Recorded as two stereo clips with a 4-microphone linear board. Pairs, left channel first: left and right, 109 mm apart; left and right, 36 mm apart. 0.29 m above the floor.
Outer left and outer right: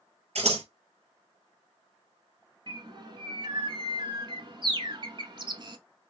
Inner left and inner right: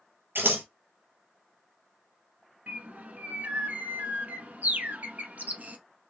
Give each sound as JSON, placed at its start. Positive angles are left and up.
{"t": 0.3, "sound": "scissors", "side_deg": -80, "distance_m": 1.1}
{"t": 2.7, "sound": "a bird", "side_deg": -50, "distance_m": 0.7}